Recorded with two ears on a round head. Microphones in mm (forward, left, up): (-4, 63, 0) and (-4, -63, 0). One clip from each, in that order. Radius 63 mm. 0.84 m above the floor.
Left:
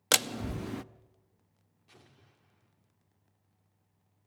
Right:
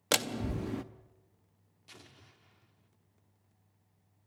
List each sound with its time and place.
0.1 s a door slam: 25° left (ahead or behind), 0.6 m
1.9 s an explosion: 75° right (ahead or behind), 2 m